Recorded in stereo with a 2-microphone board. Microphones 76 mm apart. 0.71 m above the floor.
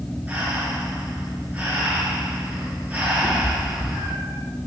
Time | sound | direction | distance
0.3 | breathing | 20° right (ahead or behind) | 7.5 m
3.2 | a cat meowing | 40° right (ahead or behind) | 9 m